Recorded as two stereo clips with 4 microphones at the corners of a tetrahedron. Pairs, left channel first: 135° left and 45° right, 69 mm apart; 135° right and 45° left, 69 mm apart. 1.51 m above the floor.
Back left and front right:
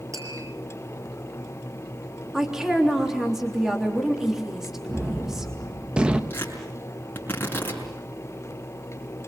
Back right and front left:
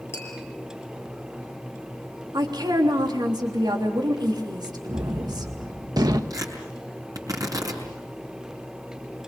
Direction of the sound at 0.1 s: 85° right.